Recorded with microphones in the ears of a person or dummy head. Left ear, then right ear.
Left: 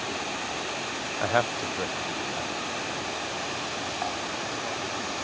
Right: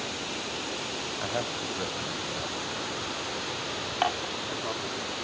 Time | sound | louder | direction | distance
1.2 | a man speaking | left 8 dB | 65° left (ahead or behind) | ?
4.0 | dishes clattering | right 3 dB | 65° right (ahead or behind) | ?